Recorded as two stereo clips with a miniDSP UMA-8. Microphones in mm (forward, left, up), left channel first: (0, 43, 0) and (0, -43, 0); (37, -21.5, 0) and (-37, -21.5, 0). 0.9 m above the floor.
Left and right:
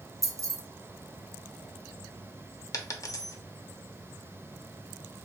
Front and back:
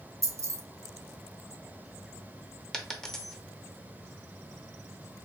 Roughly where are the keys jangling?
Behind right.